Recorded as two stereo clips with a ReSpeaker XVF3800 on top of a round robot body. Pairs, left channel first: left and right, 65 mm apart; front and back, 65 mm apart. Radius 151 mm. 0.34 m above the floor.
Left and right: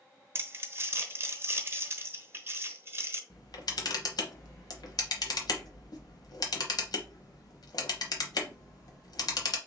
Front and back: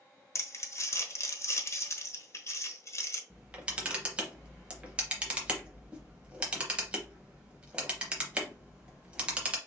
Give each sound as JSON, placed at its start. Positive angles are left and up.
{"t": 0.3, "sound": "crumpling", "azimuth_deg": -40, "distance_m": 1.1}
{"t": 3.3, "sound": "a camera shutter", "azimuth_deg": 105, "distance_m": 0.8}